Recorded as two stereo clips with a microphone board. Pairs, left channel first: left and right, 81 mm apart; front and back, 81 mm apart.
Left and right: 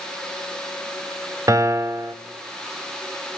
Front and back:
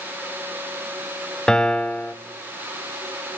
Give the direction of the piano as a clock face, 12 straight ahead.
3 o'clock.